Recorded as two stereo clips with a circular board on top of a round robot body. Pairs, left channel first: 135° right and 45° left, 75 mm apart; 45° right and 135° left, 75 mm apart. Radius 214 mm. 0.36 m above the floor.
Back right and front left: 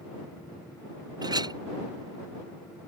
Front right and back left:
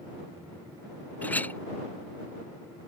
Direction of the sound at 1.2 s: 20° left.